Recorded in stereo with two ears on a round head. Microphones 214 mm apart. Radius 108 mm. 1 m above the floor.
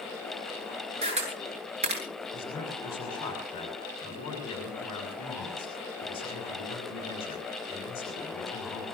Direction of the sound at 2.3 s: 20° left (ahead or behind).